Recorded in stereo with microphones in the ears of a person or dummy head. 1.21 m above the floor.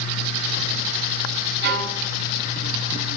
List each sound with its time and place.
1.6 s a violin: 60° right (ahead or behind), 7 m